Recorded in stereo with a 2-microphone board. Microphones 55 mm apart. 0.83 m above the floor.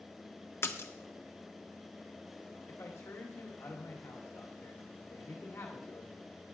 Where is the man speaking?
60° left (ahead or behind), 2 m.